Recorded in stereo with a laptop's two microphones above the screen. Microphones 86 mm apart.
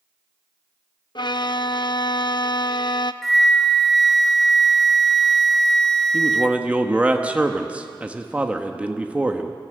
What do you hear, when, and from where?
1.1 s a violin: 55° left (ahead or behind), 0.6 m
3.2 s a flute: centre (ahead or behind), 0.5 m
6.1 s a man speaking: 15° right (ahead or behind), 1.5 m